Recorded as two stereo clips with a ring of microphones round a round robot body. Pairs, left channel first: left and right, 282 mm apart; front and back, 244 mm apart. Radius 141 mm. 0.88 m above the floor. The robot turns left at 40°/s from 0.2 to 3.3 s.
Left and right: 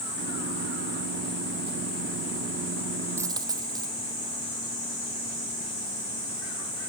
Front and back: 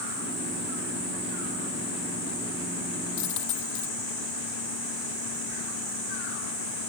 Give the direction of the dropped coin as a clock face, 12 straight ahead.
12 o'clock.